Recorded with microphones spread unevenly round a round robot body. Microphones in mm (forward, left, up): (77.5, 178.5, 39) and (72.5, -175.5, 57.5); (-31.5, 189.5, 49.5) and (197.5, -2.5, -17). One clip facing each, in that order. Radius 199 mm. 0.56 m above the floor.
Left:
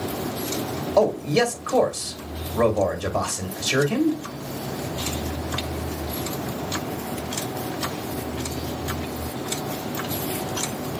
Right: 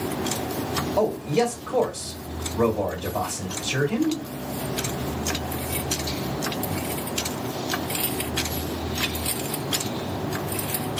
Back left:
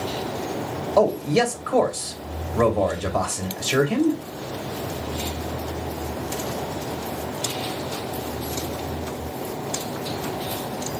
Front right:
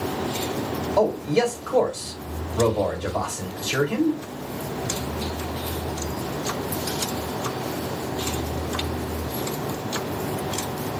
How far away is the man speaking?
About 2.5 m.